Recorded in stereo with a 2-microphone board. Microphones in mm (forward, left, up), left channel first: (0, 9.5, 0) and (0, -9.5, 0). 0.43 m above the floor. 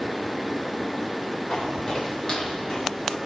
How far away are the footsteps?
About 7 m.